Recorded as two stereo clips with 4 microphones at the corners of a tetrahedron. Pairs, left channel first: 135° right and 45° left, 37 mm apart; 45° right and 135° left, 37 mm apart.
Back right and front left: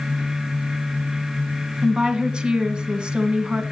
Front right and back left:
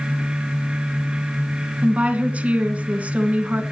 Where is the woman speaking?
100° left, 2.0 m.